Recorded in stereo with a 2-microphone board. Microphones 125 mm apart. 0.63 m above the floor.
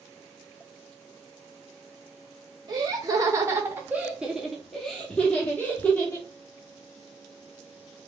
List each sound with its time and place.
2.7 s laughter: 35° right (ahead or behind), 1.0 m; by 6.3 s 20° left (ahead or behind), 1.6 m